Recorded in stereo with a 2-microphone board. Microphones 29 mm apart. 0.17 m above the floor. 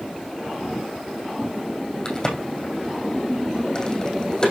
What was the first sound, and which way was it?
A crack, 20° left (ahead or behind).